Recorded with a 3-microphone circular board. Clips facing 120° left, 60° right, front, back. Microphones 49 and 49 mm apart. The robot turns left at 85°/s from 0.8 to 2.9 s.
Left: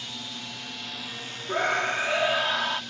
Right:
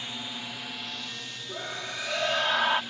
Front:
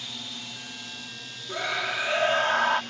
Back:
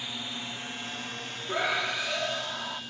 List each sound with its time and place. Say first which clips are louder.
0.0 s a drone: right 1 dB, back 2 dB; 120° right; by 2.9 s 5° left
1.5 s a scream: left 12 dB, even; 110° left; by 2.8 s straight ahead